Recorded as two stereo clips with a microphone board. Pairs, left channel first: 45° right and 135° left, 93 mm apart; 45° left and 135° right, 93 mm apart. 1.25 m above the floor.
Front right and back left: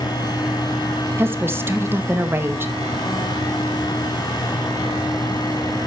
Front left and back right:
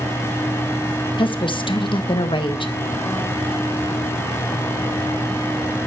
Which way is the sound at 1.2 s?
70° left.